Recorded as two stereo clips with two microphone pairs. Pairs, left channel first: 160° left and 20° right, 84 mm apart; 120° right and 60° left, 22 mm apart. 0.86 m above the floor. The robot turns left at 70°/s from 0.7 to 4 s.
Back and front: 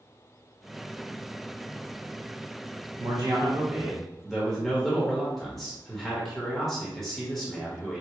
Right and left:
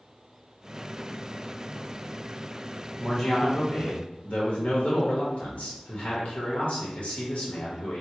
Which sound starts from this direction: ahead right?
A man speaking, at 3.0 s.